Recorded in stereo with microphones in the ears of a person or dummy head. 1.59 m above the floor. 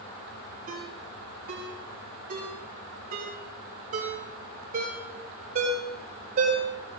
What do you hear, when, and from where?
0.7 s a ringtone: 50° right (ahead or behind), 4.5 m